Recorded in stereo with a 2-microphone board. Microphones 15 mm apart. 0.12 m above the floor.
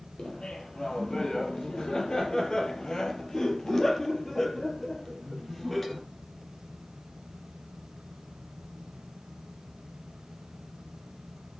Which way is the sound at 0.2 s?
65° left (ahead or behind).